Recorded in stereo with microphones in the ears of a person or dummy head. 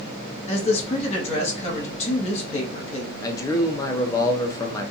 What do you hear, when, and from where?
0.5 s a man speaking: 35° left (ahead or behind), 1.2 m
3.2 s a man speaking: 15° left (ahead or behind), 0.5 m